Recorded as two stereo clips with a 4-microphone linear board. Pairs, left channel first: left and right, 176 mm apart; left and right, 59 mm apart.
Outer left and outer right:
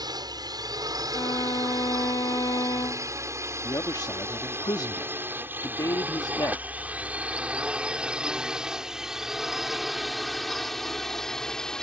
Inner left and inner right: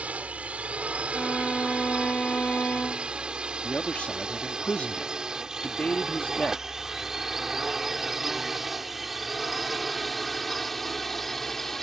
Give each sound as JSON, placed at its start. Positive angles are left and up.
{"t": 0.0, "sound": "a drone", "side_deg": -25}
{"t": 1.1, "sound": "a violin", "side_deg": 25}
{"t": 3.6, "sound": "a man speaking", "side_deg": 25}